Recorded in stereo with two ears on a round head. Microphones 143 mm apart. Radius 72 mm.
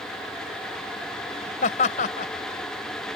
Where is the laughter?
50° left (ahead or behind).